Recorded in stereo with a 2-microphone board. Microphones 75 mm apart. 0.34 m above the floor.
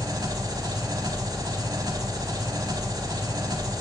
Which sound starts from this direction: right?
An engine running, at 0.0 s.